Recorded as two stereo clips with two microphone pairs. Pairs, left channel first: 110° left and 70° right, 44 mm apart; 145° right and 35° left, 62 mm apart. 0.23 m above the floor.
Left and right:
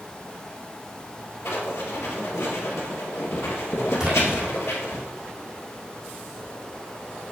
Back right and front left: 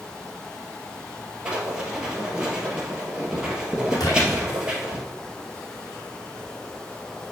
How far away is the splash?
About 3 m.